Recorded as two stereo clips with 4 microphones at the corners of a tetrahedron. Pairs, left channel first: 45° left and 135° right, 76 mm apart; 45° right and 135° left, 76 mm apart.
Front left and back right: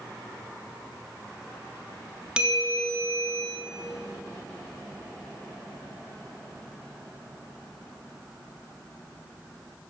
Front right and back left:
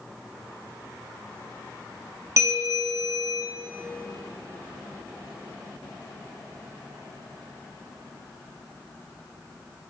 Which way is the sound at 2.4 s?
150° left.